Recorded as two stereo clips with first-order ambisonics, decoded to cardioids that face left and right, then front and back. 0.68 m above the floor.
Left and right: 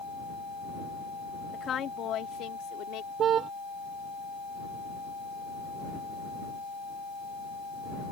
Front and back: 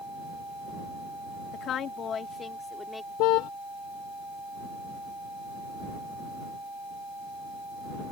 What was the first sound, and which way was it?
A woman speaking, 35° left.